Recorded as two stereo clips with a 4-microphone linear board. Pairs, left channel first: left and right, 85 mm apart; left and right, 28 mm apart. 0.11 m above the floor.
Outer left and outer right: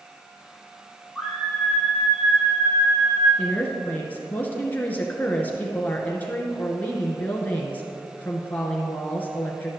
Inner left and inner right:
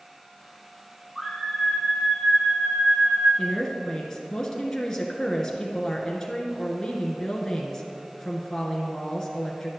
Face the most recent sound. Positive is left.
turn(degrees=20)  # may be behind; listen again after turning